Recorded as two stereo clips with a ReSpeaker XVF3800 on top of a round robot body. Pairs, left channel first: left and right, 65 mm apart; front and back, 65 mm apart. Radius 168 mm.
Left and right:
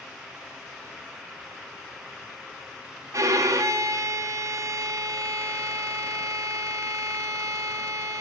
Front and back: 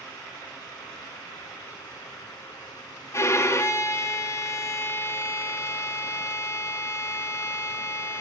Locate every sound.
3.1 s a violin: 50° right, 0.5 m